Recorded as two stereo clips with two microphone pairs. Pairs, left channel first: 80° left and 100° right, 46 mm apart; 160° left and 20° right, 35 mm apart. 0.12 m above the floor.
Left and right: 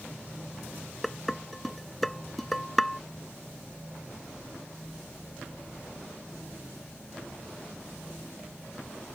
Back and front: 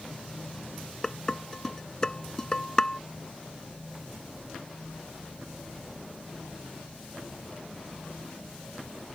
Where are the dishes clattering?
160° left.